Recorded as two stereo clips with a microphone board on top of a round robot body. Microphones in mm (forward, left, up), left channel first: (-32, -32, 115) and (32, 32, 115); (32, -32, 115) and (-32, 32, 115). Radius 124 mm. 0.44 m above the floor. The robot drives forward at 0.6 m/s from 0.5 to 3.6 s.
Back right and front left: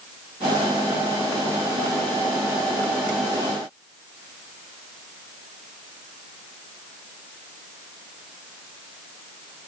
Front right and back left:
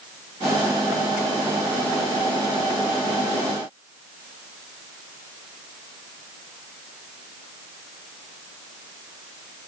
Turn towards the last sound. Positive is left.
No sound to turn to.